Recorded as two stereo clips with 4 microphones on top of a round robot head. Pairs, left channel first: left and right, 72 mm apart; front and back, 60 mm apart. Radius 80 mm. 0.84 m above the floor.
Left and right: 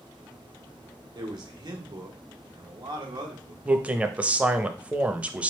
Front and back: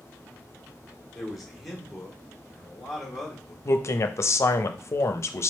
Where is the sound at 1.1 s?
95° right, 1.5 m.